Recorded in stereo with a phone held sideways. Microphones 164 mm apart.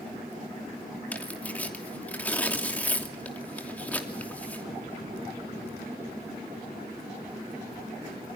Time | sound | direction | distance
1.1 | tearing paper | 10° left (ahead or behind) | 2.5 m